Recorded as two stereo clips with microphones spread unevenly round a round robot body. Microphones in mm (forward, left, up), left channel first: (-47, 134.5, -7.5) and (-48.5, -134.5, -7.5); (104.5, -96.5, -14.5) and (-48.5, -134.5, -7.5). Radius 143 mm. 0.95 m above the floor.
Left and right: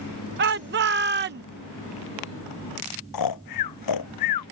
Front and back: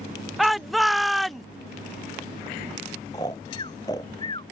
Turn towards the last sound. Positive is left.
turn(degrees=90)